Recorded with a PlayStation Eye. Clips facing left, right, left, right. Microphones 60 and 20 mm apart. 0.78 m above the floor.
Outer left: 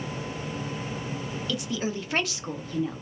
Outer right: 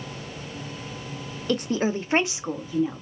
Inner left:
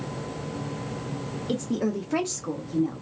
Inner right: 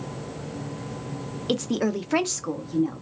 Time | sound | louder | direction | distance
1.5 | a woman speaking | outer right 7 dB, inner right 3 dB | 50° right (ahead or behind) | 0.6 m